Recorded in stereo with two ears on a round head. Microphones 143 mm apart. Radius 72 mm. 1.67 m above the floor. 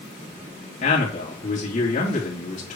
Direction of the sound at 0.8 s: 45° left (ahead or behind).